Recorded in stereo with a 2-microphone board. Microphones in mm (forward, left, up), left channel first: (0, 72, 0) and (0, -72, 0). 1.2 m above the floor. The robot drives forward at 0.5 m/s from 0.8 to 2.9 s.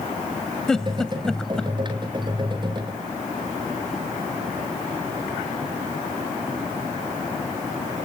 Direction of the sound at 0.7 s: 5° left (ahead or behind).